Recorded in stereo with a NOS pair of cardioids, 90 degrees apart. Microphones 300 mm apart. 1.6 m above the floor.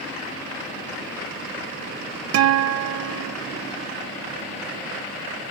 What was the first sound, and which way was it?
A guitar, 65° right.